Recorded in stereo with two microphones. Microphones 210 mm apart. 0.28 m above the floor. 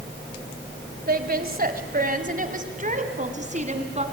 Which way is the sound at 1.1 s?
45° right (ahead or behind).